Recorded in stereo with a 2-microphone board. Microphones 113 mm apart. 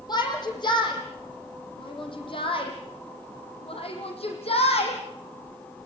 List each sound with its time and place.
0.1 s a shout: 40° left (ahead or behind), 7 m; by 5.0 s 60° left (ahead or behind), 7.5 m